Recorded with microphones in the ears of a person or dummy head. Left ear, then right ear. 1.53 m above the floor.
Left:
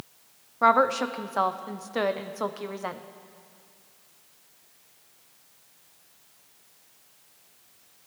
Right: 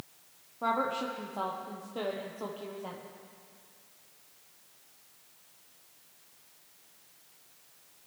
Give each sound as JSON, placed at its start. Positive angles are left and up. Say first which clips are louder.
{"t": 0.6, "sound": "a woman speaking", "louder": "left 10 dB", "side_deg": 60, "distance_m": 0.6}